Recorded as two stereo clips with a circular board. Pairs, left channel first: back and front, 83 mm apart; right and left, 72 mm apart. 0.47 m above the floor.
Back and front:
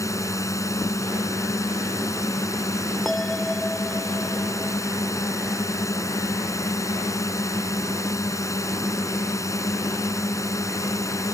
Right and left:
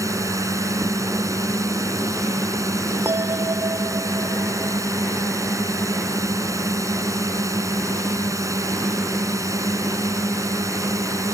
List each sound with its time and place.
0.0 s a drone: 130° left
3.0 s a bell: 95° left